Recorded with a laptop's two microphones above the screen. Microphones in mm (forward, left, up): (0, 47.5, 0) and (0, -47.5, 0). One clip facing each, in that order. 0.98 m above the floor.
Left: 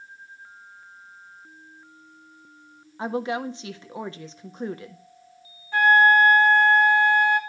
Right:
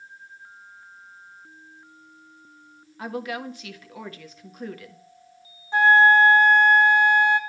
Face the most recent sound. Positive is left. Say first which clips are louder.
# right 1 dB
turn(degrees=-20)  # may be behind; listen again after turning